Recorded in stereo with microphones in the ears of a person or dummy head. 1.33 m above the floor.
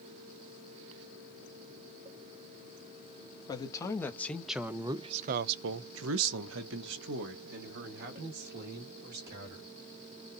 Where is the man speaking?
20° left (ahead or behind), 1.4 m; by 9.7 s 55° right (ahead or behind), 3 m.